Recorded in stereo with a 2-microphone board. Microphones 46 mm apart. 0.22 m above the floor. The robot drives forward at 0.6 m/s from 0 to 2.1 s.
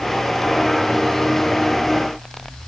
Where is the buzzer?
I don't hear a buzzer.